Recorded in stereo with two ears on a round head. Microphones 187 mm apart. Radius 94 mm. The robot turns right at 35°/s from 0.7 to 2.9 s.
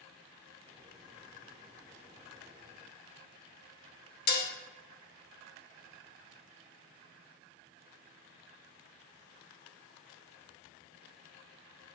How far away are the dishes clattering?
About 1.0 m.